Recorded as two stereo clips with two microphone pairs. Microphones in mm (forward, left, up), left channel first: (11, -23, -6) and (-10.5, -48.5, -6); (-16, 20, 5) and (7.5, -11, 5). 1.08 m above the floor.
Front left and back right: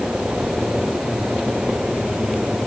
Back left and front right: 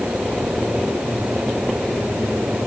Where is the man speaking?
No man speaking in this recording.